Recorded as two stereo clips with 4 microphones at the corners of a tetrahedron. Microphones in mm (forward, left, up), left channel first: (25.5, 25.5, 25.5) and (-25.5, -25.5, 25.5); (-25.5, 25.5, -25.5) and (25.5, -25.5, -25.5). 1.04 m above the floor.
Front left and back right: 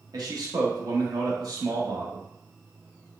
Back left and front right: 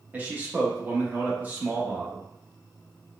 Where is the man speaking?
110° right, 1.0 m.